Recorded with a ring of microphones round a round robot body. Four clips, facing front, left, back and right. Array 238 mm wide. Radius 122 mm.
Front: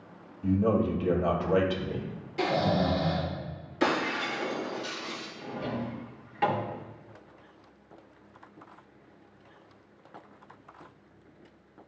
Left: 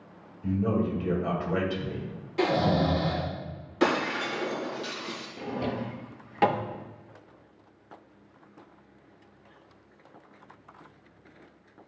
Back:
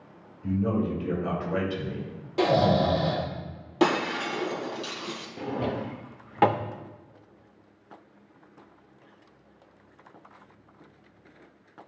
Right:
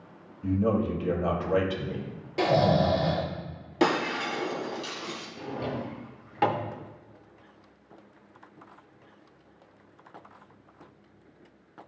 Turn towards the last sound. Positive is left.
turn(degrees=165)